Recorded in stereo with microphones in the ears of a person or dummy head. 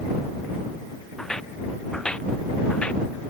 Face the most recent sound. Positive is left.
turn(degrees=10)  # may be behind; listen again after turning